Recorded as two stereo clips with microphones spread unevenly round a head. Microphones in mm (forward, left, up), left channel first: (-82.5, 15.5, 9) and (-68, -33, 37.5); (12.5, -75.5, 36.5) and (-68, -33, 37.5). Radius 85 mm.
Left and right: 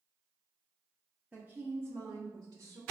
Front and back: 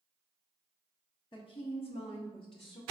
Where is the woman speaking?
15° left, 0.7 m; by 2.8 s 65° right, 1.0 m.